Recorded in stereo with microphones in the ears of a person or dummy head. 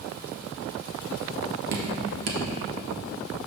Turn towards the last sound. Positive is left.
turn(degrees=-55)  # may be behind; listen again after turning